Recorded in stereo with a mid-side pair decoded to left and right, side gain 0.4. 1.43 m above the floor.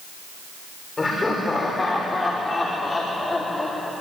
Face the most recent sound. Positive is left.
turn(degrees=20)